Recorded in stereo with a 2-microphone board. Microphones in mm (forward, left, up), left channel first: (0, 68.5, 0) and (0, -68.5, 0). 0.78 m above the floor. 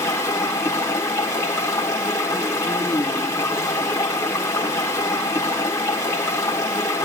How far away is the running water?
About 1.8 m.